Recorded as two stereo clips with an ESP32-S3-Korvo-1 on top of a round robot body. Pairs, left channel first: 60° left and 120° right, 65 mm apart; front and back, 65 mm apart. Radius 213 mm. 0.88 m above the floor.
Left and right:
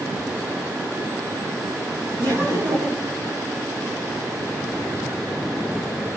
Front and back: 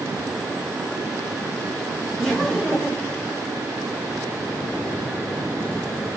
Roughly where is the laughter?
Right.